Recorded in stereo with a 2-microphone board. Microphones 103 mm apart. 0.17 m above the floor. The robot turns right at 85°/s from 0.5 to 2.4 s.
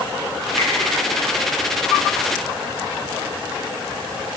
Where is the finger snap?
65° left (ahead or behind), 4.5 m; by 0.7 s 70° left (ahead or behind), 4.5 m.